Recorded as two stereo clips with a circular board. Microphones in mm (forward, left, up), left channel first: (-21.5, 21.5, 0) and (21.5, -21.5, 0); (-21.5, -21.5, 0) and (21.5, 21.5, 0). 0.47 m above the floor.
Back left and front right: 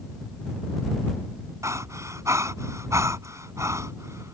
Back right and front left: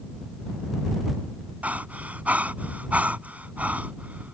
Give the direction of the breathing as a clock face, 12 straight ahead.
1 o'clock.